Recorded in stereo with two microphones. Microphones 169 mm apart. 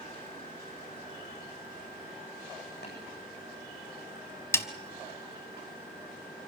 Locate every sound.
2.8 s tapping: 85° left, 8.5 m
4.5 s a snare drum: 15° left (ahead or behind), 1.1 m